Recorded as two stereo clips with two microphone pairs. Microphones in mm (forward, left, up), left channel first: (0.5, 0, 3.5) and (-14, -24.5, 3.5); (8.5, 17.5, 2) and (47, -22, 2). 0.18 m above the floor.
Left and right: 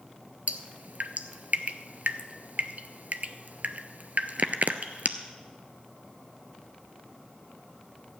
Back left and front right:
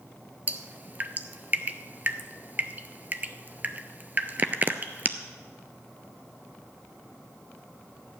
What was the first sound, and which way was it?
Dripping, 95° right.